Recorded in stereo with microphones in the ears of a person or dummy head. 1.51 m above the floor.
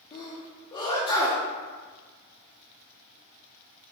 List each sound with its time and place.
0.1 s a sneeze: 20° left (ahead or behind), 0.6 m